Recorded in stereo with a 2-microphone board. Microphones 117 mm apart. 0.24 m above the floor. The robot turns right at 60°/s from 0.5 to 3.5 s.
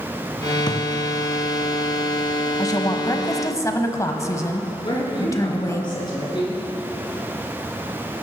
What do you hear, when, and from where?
0.7 s a thud: 35° left (ahead or behind), 2.5 m; by 0.8 s 25° left (ahead or behind), 2.5 m
2.6 s a woman speaking: 70° left, 1.2 m; by 5.8 s 125° left, 1.2 m
4.8 s a woman speaking: 40° left (ahead or behind), 4 m